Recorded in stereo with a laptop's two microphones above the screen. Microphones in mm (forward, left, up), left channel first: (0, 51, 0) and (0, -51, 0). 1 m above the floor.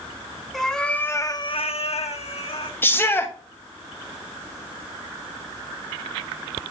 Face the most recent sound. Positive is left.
turn(degrees=20)  # may be behind; listen again after turning